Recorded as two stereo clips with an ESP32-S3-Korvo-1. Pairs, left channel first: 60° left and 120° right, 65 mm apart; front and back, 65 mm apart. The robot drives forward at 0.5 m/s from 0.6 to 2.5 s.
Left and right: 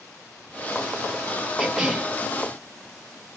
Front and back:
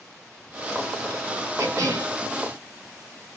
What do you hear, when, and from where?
1.6 s a cough: 155° left, 3 m